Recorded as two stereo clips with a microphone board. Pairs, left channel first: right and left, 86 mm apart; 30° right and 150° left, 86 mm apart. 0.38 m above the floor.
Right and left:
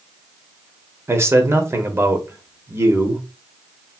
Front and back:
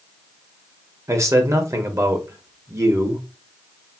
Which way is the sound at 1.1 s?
130° left.